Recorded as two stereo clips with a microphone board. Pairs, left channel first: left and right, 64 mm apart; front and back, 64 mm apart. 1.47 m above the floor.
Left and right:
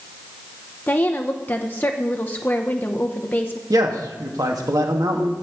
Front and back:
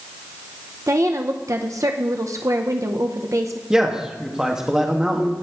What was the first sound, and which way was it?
A woman speaking, 150° left.